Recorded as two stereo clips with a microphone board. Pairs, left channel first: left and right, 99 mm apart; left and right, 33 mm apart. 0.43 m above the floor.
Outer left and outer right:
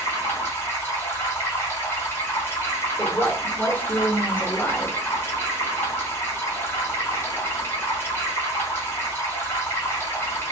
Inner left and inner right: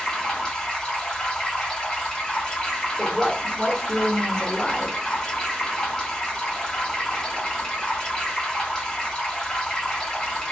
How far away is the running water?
About 1.3 m.